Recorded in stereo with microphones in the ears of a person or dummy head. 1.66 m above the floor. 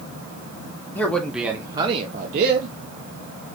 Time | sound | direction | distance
0.9 | a man speaking | 15° left (ahead or behind) | 1.3 m